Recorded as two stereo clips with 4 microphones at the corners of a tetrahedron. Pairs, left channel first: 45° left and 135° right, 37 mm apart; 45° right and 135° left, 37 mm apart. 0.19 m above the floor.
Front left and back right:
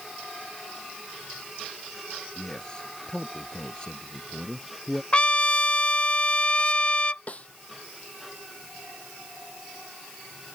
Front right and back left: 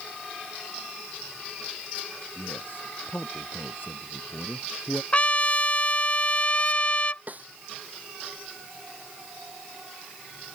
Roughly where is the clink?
I don't hear a clink.